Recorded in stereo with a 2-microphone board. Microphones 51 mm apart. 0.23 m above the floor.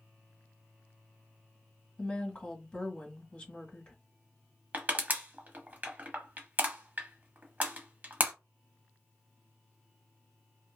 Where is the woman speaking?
20° left (ahead or behind), 1.3 m.